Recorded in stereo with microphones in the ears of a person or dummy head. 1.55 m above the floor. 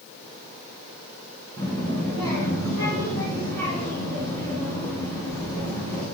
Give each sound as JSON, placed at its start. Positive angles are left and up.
{"t": 1.6, "sound": "a child speaking", "side_deg": -70, "distance_m": 4.0}